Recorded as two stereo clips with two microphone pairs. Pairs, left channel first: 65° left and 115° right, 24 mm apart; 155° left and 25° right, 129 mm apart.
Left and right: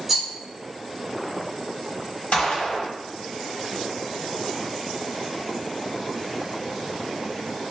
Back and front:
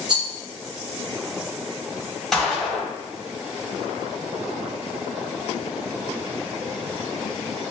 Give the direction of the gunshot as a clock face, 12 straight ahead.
10 o'clock.